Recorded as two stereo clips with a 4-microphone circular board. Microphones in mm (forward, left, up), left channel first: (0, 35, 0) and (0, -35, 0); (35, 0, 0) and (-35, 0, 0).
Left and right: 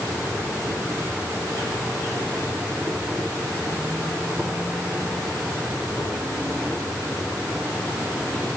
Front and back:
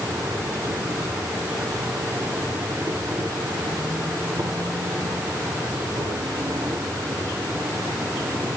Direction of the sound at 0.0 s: 150° right.